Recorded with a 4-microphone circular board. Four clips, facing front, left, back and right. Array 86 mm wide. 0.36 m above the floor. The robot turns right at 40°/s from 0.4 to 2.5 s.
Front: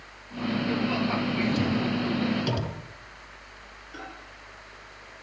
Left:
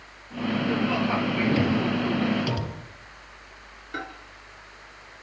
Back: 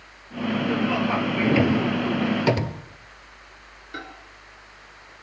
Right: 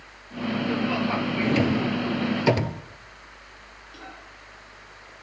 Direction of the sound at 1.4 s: 175° right.